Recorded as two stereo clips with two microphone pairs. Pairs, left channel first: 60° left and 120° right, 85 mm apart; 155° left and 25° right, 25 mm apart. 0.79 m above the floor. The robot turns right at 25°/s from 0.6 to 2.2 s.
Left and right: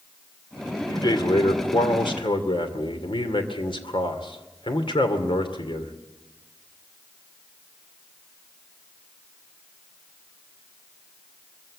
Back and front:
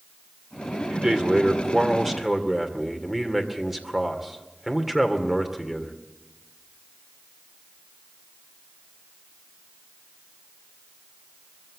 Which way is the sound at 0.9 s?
20° left.